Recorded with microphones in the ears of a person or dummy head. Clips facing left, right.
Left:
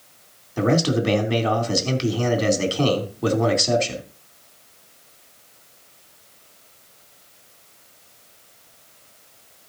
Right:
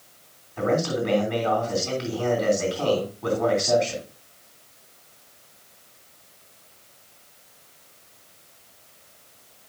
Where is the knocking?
No knocking in this recording.